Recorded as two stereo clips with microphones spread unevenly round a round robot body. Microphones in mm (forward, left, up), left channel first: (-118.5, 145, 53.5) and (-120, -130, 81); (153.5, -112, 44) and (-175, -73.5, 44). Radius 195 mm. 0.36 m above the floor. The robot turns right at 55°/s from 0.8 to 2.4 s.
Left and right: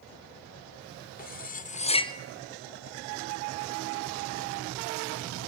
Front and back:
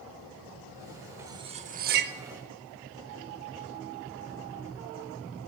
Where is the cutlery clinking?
95° left, 0.6 m; by 2.1 s 145° left, 0.6 m.